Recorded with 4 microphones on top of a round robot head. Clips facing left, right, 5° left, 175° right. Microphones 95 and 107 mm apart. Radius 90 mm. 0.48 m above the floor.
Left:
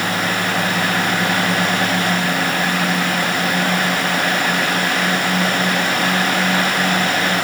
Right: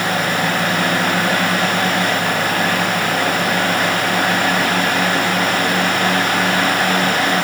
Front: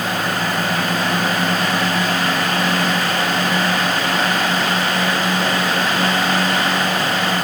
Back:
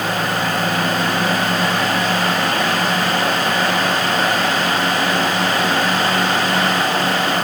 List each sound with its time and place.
Only background noise.